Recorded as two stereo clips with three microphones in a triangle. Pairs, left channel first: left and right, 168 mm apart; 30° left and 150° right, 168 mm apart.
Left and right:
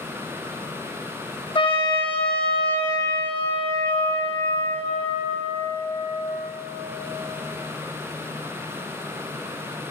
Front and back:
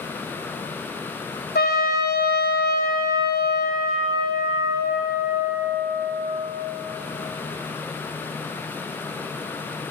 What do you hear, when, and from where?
1.6 s a trumpet: 35° left, 0.9 m